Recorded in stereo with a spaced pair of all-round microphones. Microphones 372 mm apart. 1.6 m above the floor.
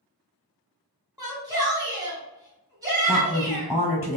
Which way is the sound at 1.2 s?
10° right (ahead or behind).